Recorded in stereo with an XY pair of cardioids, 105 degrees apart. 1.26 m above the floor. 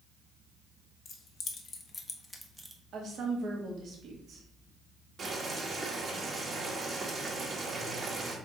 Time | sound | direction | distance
1.1 | keys jangling | 65° left | 1.2 m
2.9 | a woman speaking | 60° right | 1.5 m
5.2 | boiling | 40° right | 1.5 m